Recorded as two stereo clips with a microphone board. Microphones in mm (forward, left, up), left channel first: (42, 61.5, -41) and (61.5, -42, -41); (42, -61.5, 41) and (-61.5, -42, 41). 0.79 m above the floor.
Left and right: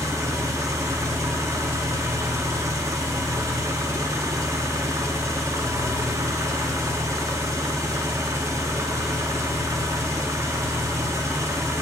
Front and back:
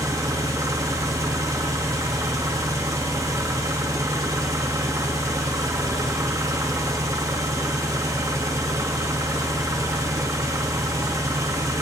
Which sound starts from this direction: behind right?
An engine running, at 0.0 s.